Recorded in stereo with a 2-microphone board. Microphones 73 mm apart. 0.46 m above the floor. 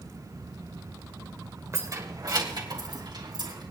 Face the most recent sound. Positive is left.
turn(degrees=-80)